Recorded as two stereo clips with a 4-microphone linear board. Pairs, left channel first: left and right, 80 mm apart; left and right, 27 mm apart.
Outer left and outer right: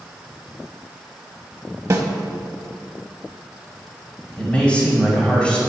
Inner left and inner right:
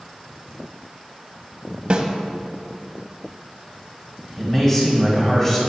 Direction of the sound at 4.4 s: 20° left (ahead or behind).